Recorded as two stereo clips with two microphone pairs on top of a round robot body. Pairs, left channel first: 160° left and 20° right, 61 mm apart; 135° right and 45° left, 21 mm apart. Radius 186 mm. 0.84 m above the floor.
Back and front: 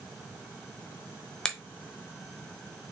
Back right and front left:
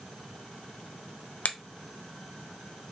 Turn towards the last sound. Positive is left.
turn(degrees=-120)